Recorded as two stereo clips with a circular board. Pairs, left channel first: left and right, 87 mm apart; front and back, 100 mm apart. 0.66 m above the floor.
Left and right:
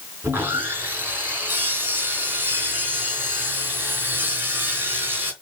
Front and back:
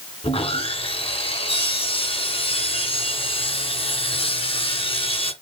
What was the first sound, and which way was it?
Sawing, 25° right.